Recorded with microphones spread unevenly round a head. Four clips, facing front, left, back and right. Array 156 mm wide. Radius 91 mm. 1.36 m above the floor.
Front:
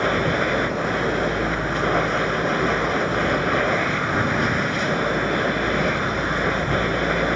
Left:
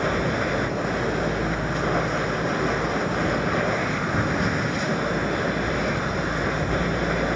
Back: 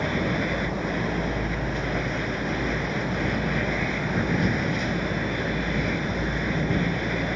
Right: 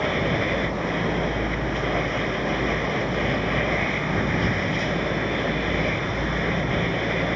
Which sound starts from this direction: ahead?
A machine running, at 0.0 s.